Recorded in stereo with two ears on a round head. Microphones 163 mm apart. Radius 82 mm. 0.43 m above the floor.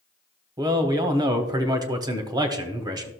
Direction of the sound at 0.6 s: 20° right (ahead or behind).